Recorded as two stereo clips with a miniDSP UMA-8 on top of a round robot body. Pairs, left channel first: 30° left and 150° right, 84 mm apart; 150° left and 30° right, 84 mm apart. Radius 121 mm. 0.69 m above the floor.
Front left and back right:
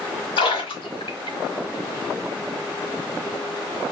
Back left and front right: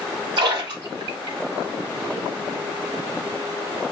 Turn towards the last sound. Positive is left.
turn(degrees=5)